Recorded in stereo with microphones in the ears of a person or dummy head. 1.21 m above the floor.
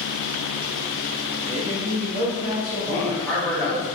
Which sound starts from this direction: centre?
A man speaking, at 2.9 s.